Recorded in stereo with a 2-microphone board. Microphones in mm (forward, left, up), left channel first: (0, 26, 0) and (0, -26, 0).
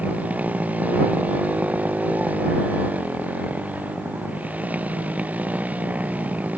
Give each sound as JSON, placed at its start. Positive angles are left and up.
{"t": 0.0, "sound": "a motorcycle", "side_deg": -30}